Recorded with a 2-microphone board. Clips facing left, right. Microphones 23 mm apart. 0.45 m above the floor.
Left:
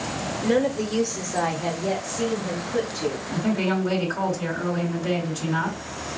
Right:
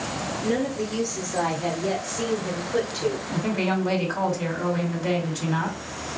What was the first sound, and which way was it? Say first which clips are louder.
A woman speaking: left 4 dB; 35° left (ahead or behind).